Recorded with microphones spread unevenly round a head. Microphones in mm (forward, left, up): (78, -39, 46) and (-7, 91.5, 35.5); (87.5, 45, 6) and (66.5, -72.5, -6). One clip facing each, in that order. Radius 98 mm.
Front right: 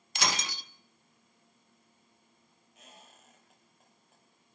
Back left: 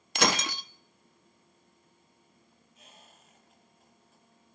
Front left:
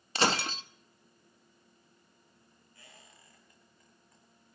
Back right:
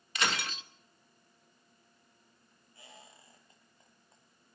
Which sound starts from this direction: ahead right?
A squeak, at 2.8 s.